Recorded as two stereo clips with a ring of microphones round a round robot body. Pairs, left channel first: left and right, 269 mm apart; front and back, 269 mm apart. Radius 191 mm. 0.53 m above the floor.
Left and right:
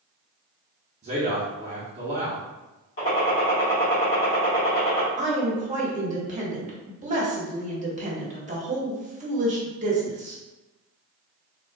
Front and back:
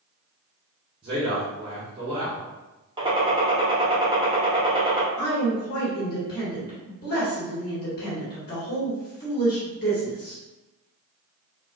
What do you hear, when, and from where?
1.0 s a man speaking: 130° right, 0.8 m
3.0 s a gunshot: 115° left, 1.2 m
5.2 s a woman speaking: 40° right, 1.4 m